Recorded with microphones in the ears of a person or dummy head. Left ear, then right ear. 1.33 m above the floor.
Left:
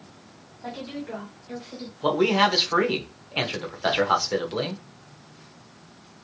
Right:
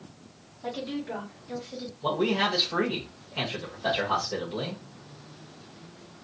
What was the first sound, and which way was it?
A woman speaking, centre (ahead or behind).